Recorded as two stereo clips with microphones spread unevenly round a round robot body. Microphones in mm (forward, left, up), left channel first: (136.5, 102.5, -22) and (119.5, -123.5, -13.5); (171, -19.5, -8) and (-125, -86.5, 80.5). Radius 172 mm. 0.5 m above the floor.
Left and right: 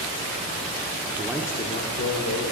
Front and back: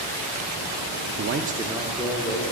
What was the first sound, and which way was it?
A man speaking, 140° right.